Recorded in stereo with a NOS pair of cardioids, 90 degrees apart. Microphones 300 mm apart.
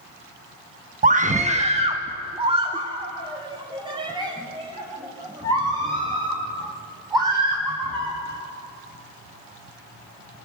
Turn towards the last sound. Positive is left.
turn(degrees=-15)